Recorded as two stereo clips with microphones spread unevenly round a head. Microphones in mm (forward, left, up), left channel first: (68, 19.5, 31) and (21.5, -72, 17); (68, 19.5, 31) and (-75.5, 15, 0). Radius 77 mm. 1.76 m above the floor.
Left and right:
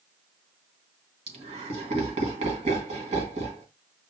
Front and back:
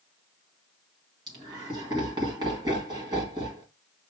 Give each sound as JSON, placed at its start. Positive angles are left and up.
{"t": 1.3, "sound": "laughter", "azimuth_deg": -110, "distance_m": 1.7}